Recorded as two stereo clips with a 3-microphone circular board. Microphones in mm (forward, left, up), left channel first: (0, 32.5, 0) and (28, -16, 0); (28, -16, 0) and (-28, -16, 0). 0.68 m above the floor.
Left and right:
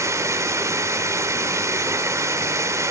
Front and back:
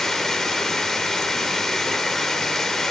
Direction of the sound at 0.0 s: 80° right.